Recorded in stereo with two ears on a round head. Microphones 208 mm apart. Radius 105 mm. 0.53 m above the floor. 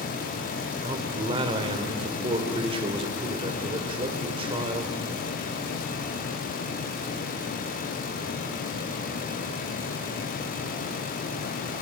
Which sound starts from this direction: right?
A man speaking, at 0.8 s.